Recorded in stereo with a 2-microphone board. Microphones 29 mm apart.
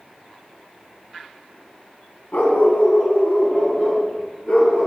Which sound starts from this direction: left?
A dog barking, at 2.3 s.